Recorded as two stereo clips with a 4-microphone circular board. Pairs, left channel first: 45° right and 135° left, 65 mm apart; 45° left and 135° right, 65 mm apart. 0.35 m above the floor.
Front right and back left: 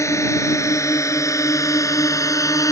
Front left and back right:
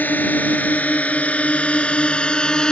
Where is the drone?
15° right; by 2.7 s 30° right.